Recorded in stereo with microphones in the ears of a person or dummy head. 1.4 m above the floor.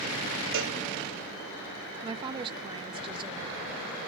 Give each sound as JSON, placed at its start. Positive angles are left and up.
{"t": 0.5, "sound": "a cowbell", "side_deg": -60, "distance_m": 1.1}
{"t": 2.0, "sound": "a woman speaking", "side_deg": -25, "distance_m": 0.6}